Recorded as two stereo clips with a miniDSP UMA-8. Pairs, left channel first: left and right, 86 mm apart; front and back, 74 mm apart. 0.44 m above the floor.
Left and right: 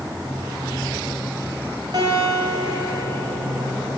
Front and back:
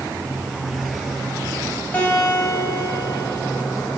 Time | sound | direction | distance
1.9 | a guitar | 65° right | 3 m